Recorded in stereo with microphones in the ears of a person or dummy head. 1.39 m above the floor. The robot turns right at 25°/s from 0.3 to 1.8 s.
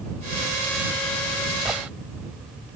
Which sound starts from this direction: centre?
A gunshot, at 1.6 s.